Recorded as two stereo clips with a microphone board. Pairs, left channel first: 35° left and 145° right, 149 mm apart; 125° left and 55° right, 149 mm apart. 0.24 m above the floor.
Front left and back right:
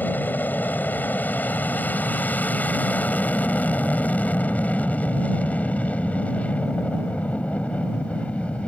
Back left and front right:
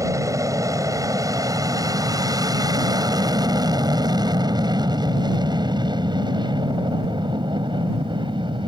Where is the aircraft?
25° right; by 8.7 s 40° right.